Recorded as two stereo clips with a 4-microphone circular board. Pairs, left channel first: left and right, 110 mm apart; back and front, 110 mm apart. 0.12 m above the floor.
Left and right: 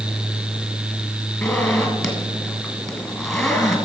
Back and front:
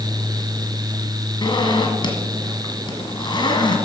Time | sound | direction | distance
1.4 | a zipper | 175° left | 1.8 m